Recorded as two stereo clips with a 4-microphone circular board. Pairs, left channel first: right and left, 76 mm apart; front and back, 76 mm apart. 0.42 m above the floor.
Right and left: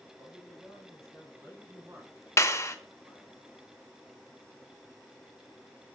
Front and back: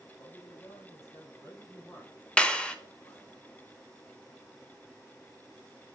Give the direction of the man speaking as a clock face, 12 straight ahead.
10 o'clock.